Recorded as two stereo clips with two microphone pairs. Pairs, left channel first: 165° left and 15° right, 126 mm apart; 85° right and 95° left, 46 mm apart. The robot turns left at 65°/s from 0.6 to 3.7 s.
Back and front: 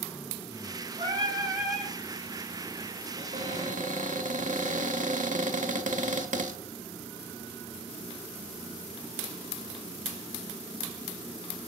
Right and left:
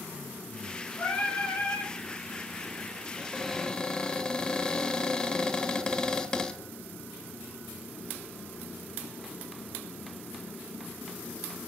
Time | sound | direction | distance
1.0 | singing | 50° right | 5 m
3.2 | a cupboard door | 20° left | 1.2 m